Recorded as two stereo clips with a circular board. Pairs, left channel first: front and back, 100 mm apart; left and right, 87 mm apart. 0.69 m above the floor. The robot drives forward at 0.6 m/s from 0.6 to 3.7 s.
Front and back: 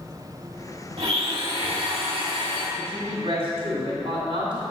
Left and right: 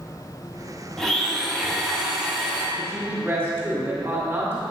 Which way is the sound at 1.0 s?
170° left.